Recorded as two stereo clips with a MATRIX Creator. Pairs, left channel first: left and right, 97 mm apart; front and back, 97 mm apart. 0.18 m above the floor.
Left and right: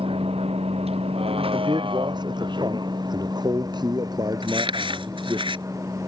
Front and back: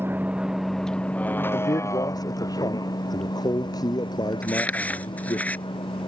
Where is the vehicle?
110° right; by 6.1 s 30° right.